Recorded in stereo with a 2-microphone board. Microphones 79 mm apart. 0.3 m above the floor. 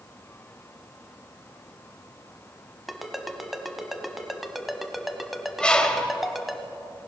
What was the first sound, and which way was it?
A ringtone, centre (ahead or behind).